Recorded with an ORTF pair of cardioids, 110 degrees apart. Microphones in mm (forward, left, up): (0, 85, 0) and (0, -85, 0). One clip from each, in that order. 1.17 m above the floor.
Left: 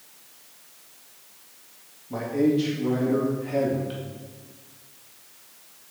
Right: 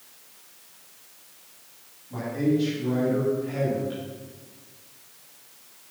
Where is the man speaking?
50° left, 2.5 m.